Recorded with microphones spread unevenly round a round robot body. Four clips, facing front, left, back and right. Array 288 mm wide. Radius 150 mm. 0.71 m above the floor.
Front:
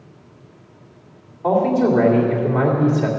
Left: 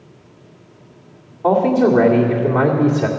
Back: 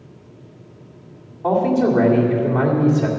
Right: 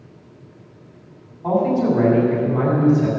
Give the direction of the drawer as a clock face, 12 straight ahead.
No drawer in this recording.